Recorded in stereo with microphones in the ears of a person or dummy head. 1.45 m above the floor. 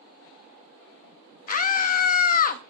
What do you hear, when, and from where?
1.5 s a scream: 45° left (ahead or behind), 0.5 m